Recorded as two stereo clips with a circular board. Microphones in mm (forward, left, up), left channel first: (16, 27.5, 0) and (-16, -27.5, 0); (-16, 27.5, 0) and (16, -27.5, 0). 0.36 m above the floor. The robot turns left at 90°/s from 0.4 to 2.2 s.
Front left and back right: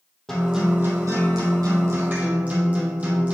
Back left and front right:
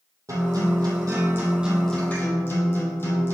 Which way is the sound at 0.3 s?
25° right.